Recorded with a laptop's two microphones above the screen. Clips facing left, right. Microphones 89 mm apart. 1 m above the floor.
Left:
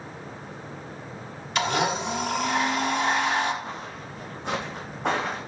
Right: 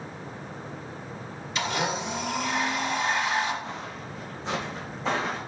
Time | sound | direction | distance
1.6 | a blender | 65° left (ahead or behind) | 1.1 m
3.6 | footsteps | 50° left (ahead or behind) | 3 m